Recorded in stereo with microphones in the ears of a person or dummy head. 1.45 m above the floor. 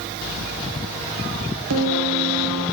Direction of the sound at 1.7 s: 80° right.